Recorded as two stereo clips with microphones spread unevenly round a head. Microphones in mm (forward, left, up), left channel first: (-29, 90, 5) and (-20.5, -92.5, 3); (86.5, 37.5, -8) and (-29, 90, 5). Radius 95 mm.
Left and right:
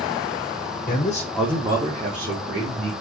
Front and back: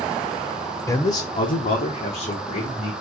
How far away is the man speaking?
About 0.8 m.